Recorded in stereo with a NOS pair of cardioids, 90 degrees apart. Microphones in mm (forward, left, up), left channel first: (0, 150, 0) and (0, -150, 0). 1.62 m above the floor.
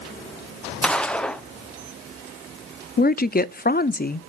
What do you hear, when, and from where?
0.8 s a gunshot: 5° left, 0.8 m
3.0 s a woman speaking: 30° left, 0.6 m